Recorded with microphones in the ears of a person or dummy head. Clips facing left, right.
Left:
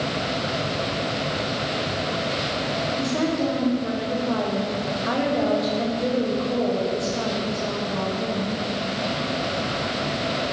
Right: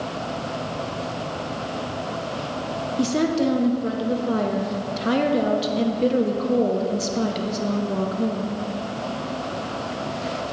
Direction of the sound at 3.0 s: 40° right (ahead or behind).